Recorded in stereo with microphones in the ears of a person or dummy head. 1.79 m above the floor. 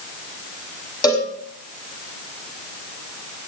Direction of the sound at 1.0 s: 20° left (ahead or behind).